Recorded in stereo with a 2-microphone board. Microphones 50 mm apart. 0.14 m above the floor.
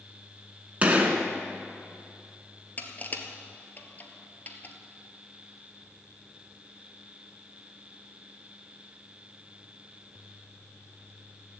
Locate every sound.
0.8 s a gunshot: 30° right (ahead or behind), 1.3 m
2.8 s crushing: 40° left (ahead or behind), 1.1 m